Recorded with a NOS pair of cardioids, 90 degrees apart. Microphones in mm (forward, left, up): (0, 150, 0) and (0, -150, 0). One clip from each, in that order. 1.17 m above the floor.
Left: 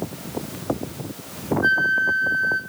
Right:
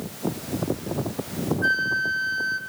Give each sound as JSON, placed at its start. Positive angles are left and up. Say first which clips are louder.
{"t": 1.6, "sound": "a flute", "louder": "left 4 dB", "azimuth_deg": -40, "distance_m": 1.4}